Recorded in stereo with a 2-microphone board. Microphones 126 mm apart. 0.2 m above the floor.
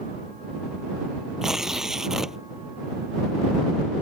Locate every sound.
1.4 s tearing paper: 5° right (ahead or behind)